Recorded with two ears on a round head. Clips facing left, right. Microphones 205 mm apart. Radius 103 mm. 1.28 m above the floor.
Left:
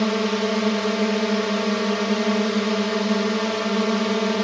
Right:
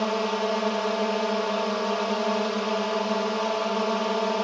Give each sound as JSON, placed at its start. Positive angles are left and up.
{"t": 0.0, "sound": "a drone", "side_deg": 30}